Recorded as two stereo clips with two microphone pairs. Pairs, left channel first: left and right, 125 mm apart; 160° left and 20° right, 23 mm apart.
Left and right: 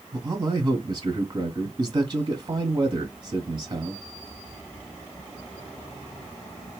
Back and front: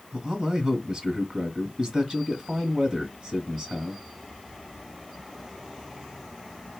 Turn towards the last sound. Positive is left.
turn(degrees=-55)